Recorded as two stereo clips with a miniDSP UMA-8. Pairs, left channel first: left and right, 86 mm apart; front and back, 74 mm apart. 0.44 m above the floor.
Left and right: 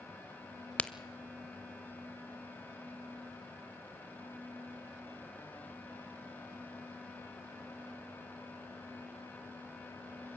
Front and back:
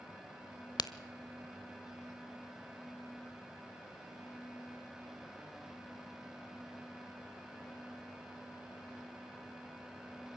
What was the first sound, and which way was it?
A crack, 15° left.